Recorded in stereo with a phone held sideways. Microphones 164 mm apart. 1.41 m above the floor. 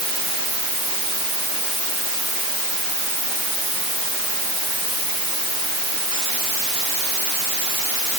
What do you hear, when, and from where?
Only background noise.